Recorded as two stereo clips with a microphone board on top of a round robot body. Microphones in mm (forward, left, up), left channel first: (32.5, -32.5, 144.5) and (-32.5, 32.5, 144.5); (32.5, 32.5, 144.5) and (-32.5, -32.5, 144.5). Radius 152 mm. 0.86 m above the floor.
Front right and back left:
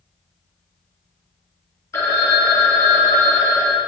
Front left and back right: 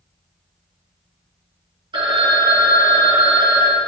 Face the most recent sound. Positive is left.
turn(degrees=-105)